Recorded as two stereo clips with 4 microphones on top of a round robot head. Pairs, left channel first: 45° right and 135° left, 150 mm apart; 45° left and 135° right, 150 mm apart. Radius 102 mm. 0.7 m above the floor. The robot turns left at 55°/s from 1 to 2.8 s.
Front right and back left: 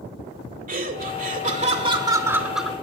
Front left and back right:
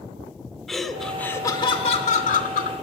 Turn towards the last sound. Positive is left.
turn(degrees=35)